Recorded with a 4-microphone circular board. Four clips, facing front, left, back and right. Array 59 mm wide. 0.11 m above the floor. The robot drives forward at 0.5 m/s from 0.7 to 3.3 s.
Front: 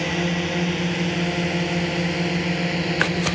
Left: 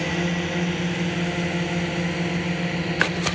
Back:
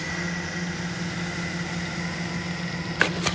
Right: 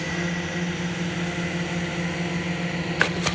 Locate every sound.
0.0 s a drone: 25° left; by 3.4 s 5° left